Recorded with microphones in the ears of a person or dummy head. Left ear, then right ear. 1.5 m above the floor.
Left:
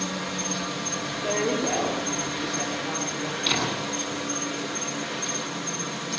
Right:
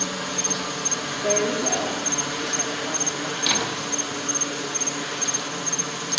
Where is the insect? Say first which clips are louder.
Right 3 dB; 50° right (ahead or behind), 1.9 m.